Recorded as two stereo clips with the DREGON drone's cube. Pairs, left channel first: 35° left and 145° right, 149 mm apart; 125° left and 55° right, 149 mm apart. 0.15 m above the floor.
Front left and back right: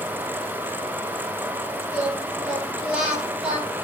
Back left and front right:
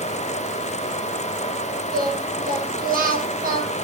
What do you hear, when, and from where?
1.9 s singing: 60° right, 4.5 m